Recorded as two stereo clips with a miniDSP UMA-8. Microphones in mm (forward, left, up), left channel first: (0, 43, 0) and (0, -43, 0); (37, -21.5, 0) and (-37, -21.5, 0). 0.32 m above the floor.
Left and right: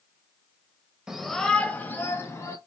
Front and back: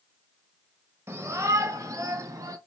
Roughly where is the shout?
Behind.